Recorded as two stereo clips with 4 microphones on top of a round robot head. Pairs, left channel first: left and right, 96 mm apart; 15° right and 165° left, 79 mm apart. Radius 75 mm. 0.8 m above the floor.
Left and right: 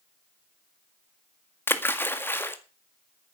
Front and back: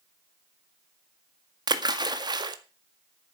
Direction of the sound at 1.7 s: 155° left.